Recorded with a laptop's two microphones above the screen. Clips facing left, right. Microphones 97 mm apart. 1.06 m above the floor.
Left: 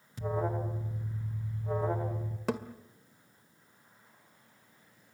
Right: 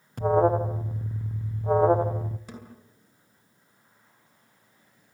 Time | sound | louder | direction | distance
0.2 | an alarm | right 12 dB | 55° right (ahead or behind) | 0.9 m
2.5 | a thud | left 10 dB | 75° left (ahead or behind) | 1.7 m